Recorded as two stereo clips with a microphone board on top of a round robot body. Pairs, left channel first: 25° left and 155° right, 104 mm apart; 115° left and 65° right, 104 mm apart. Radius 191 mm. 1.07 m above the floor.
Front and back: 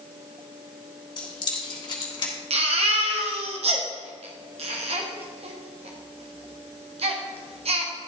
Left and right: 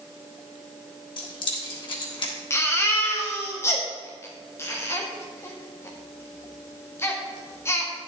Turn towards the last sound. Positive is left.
turn(degrees=180)